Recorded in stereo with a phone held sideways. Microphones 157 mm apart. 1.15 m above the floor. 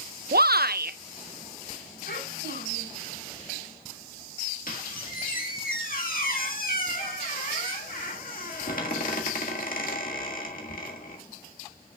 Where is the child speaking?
75° left (ahead or behind), 4.5 m.